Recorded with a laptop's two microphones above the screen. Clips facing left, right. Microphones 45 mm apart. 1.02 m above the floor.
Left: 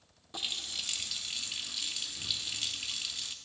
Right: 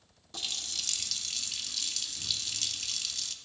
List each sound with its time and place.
0.3 s a running tap: 15° left (ahead or behind), 0.6 m